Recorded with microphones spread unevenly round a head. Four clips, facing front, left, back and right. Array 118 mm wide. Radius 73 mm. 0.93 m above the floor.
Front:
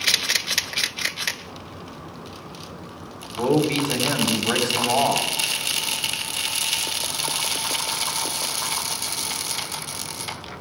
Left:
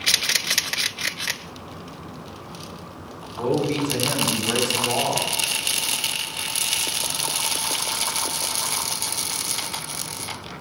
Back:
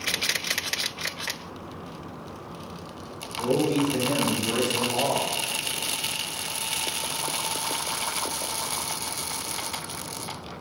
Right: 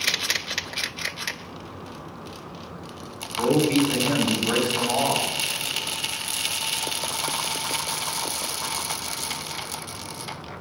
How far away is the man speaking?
About 4.5 m.